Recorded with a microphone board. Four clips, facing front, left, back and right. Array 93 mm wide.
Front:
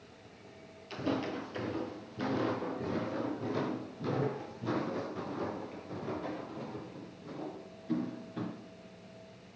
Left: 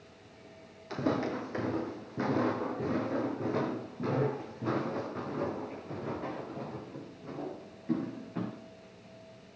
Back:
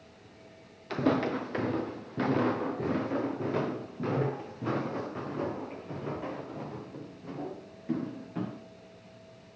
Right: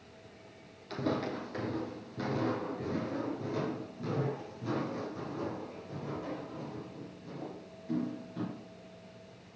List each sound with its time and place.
0.9 s footsteps: 165° left, 2 m; by 8.6 s 140° left, 8.5 m